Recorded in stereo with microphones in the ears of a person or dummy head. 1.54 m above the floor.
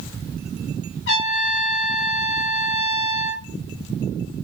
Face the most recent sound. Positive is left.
turn(degrees=70)  # may be behind; listen again after turning